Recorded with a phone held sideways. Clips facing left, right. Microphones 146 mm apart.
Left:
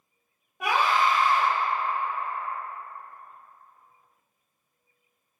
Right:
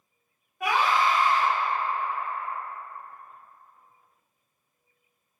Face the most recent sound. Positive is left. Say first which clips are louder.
# even
turn(degrees=85)